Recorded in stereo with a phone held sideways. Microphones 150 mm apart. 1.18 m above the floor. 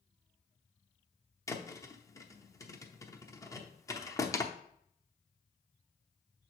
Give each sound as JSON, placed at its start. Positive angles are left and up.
{"t": 1.5, "sound": "a thud", "side_deg": 20, "distance_m": 0.7}